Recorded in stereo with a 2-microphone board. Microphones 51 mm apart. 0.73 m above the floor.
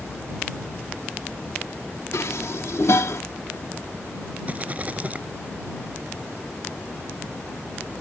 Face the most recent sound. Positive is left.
turn(degrees=-30)  # may be behind; listen again after turning